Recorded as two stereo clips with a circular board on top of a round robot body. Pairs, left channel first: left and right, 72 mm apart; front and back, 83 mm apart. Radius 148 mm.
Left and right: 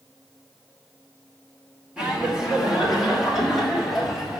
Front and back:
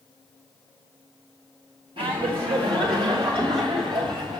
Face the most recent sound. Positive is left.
turn(degrees=180)